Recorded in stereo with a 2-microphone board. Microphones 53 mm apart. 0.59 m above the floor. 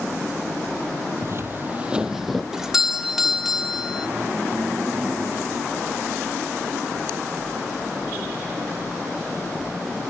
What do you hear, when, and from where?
1.2 s footsteps: 55° right (ahead or behind), 1.0 m; by 2.4 s centre (ahead or behind), 1.3 m
2.5 s a doorbell: 10° right (ahead or behind), 1.6 m